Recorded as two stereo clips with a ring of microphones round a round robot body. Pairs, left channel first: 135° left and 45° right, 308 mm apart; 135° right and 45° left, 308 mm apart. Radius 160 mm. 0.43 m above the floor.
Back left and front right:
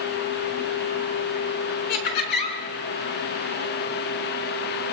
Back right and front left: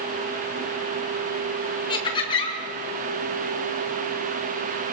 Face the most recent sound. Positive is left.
turn(degrees=150)